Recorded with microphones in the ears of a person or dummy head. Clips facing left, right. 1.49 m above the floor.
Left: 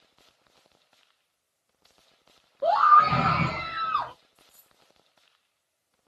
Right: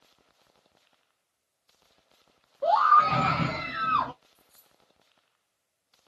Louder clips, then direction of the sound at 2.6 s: Left 1 dB; 20° left (ahead or behind).